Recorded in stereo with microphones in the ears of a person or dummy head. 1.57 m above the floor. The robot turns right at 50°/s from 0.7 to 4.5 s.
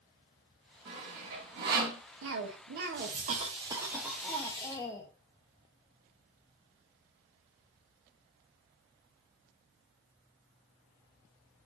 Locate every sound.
0.8 s sawing: 30° right (ahead or behind), 1.6 m; by 2.0 s 55° right (ahead or behind), 1.6 m
2.2 s a cough: 100° right, 0.8 m; by 5.1 s 15° left, 0.8 m